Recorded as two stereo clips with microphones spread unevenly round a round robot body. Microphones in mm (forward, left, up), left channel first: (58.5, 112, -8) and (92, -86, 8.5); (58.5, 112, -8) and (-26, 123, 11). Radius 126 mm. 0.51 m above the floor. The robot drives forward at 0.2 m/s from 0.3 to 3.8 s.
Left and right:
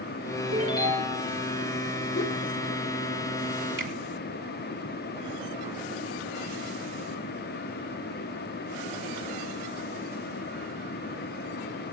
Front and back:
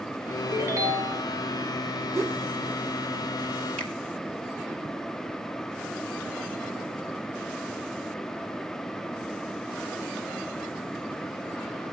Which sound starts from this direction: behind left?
A ringtone, at 0.5 s.